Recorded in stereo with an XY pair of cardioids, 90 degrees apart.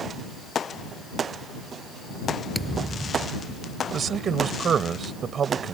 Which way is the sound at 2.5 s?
15° right.